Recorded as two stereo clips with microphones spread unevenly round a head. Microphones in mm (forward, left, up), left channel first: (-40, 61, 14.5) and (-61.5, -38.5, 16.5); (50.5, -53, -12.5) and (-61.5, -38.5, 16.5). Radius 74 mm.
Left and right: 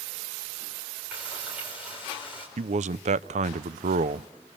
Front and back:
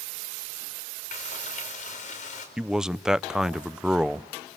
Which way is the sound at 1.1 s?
20° right.